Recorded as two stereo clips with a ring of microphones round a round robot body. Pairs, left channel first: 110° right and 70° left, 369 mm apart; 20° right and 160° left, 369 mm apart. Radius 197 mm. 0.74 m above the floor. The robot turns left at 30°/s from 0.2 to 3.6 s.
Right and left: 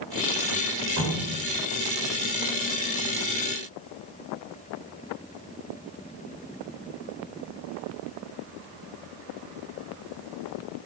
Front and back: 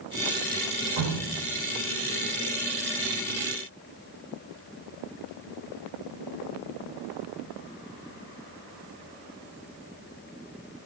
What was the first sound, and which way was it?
Dripping, 115° left.